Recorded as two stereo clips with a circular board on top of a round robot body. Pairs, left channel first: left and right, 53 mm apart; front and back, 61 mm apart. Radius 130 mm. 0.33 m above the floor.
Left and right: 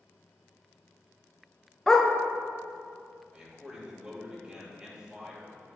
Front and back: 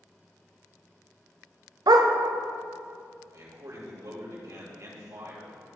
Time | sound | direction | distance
1.9 | a dog barking | 170° left | 0.7 m
3.3 | a man speaking | 165° right | 2.5 m